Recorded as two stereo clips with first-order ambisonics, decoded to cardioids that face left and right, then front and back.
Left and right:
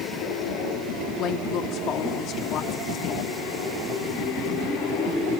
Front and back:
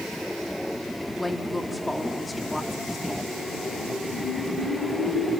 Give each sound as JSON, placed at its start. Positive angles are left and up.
{"t": 1.2, "sound": "a woman speaking", "azimuth_deg": 85, "distance_m": 0.9}